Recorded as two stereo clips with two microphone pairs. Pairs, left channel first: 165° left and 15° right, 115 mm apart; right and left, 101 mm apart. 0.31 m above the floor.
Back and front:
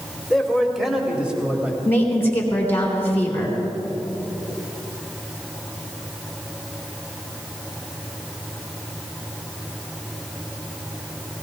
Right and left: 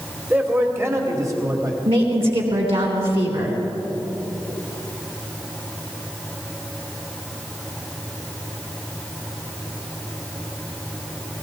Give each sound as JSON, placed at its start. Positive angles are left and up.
{"t": 0.3, "sound": "a man speaking", "azimuth_deg": 85, "distance_m": 1.5}
{"t": 1.9, "sound": "a woman speaking", "azimuth_deg": 95, "distance_m": 3.5}